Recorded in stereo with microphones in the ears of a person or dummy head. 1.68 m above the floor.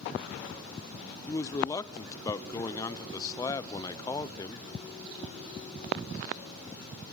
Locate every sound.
1.3 s a man speaking: 20° left (ahead or behind), 0.6 m